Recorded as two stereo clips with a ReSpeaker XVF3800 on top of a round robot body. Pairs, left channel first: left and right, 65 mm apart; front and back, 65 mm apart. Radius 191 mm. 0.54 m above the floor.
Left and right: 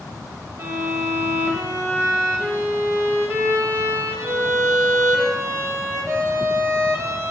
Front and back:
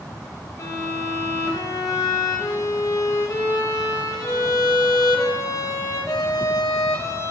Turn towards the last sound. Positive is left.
turn(degrees=-40)